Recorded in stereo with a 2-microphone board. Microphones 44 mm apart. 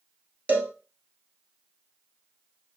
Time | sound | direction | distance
0.5 | a cowbell | 40° right (ahead or behind) | 1.3 m